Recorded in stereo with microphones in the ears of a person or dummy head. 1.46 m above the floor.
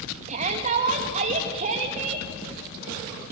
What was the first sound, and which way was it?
A shout, 40° right (ahead or behind).